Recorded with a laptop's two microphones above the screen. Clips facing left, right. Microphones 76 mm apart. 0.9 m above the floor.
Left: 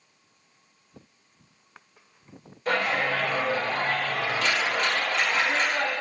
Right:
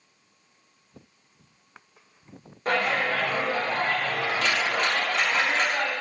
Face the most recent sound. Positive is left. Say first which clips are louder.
# right 1 dB
turn(degrees=-40)  # may be behind; listen again after turning